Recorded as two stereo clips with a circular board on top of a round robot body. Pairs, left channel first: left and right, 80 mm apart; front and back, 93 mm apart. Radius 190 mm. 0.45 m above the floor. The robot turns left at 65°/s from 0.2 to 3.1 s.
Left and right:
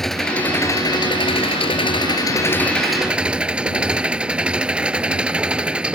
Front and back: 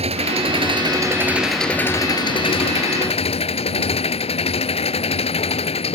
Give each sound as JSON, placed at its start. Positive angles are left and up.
{"t": 0.0, "sound": "an engine running", "azimuth_deg": 175}